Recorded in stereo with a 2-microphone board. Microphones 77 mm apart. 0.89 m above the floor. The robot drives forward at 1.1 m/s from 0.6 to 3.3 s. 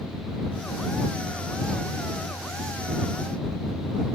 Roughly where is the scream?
No scream in this recording.